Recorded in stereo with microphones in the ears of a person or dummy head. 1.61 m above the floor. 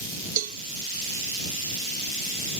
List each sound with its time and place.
0.4 s a cowbell: 45° right (ahead or behind)